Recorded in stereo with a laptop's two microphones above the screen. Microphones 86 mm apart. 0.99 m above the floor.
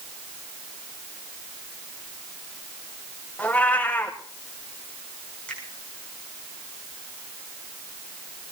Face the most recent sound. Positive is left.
turn(degrees=10)  # may be behind; listen again after turning